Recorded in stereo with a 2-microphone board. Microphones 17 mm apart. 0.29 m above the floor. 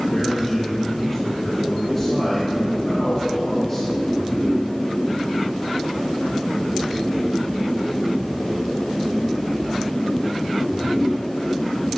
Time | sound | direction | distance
0.1 | a man speaking | 25° left (ahead or behind) | 3 m